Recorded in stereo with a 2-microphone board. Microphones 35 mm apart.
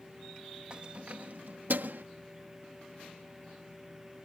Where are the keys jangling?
30° right (ahead or behind); by 2.0 s 75° right (ahead or behind).